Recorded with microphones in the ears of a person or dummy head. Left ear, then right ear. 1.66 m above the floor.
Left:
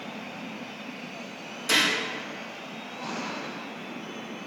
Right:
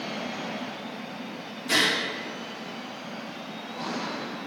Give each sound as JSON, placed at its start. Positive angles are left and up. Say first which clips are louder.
{"t": 1.7, "sound": "a gunshot", "louder": "even", "side_deg": 40, "distance_m": 3.0}